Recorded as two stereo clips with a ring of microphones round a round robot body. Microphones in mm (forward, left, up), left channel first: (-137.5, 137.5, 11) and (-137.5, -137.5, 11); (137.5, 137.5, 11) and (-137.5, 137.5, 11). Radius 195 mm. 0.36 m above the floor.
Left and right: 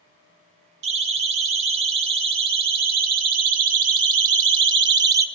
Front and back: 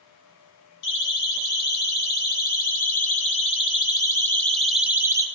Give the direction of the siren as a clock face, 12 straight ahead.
2 o'clock.